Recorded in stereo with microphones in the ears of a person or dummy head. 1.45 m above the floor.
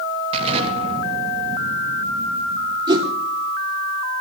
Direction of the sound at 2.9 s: 20° right (ahead or behind).